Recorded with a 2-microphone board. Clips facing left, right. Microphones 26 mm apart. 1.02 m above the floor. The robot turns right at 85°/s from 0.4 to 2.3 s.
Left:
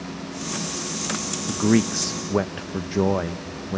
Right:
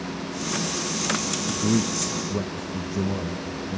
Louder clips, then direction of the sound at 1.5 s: Left 5 dB; 45° left.